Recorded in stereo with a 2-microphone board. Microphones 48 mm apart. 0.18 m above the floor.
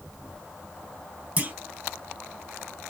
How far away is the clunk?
About 1.1 m.